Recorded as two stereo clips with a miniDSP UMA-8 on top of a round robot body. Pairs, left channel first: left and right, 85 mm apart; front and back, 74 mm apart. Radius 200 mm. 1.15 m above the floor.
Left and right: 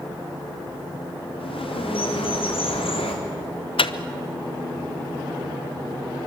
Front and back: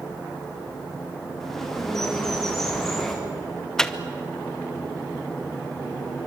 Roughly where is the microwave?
Left.